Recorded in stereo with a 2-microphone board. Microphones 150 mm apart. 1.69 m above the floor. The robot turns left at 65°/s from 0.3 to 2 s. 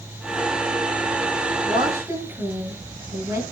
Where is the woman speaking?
40° right (ahead or behind), 9 m; by 3.4 s 15° right (ahead or behind), 9 m.